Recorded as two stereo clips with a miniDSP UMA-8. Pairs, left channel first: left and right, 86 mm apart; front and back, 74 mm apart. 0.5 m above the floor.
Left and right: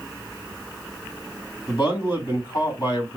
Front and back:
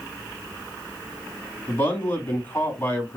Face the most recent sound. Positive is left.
turn(degrees=65)